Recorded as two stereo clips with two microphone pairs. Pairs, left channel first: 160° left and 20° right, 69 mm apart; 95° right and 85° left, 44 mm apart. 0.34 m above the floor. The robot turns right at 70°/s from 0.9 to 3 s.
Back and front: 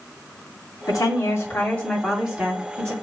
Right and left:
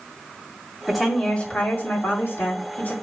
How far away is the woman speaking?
About 2 m.